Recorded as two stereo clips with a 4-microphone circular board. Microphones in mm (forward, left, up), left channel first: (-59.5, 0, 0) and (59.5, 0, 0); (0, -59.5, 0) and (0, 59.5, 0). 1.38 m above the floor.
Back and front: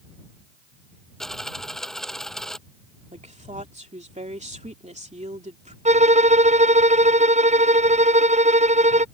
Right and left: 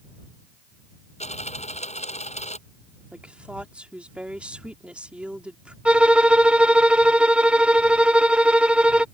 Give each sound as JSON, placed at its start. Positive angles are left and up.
{"t": 1.2, "sound": "a dropped coin", "azimuth_deg": -95}
{"t": 3.1, "sound": "a woman speaking", "azimuth_deg": 10}
{"t": 5.8, "sound": "a violin", "azimuth_deg": 10}